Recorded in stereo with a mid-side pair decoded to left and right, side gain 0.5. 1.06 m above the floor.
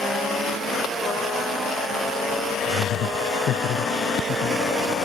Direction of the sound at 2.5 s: 65° left.